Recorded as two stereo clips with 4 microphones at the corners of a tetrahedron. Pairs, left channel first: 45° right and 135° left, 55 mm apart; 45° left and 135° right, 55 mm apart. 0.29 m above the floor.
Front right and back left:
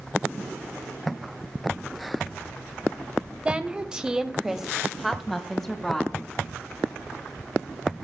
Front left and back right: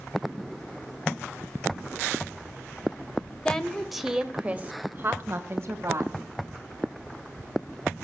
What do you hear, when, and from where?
3.5 s a woman speaking: 100° left, 1.3 m; by 6.1 s 125° right, 2 m